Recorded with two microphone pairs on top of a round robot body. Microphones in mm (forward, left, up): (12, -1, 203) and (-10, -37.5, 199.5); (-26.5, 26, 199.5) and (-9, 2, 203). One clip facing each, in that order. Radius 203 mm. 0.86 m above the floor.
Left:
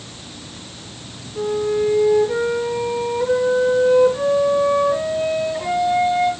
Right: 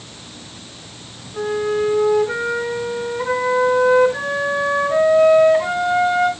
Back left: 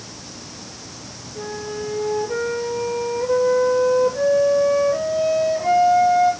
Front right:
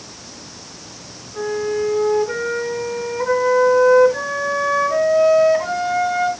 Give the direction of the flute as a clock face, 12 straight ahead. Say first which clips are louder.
Even, front right 8 dB; 3 o'clock.